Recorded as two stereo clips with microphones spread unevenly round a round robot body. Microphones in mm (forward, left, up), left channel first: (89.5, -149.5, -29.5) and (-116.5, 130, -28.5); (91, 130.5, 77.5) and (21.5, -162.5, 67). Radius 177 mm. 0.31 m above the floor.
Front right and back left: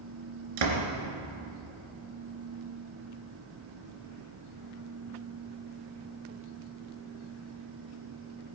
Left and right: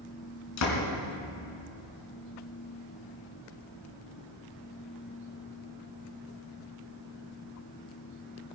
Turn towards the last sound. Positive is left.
turn(degrees=115)